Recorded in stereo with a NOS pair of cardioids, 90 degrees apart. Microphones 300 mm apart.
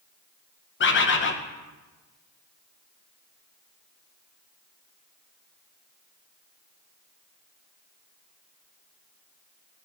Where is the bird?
40° left, 0.8 m.